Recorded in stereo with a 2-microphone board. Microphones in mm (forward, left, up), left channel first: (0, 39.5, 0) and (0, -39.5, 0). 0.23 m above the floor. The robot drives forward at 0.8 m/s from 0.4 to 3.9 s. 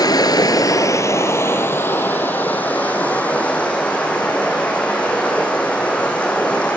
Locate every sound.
0.0 s running water: 60° left (ahead or behind), 1.0 m; by 6.8 s 15° left (ahead or behind), 3.5 m